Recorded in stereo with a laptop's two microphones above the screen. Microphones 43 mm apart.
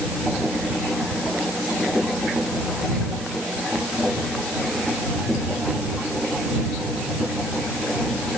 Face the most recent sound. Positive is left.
No sound to turn to.